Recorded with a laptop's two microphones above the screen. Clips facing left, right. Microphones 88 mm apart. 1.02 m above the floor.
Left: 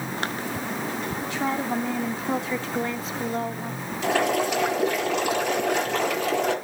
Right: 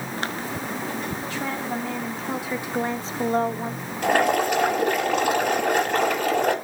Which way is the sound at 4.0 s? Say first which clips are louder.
Right 3 dB; 50° right (ahead or behind).